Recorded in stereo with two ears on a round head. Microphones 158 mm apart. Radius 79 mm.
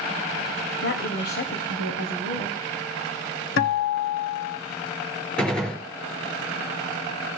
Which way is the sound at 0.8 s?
60° left (ahead or behind).